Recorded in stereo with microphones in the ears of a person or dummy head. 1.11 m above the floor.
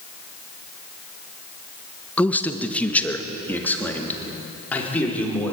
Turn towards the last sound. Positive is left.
turn(degrees=5)  # may be behind; listen again after turning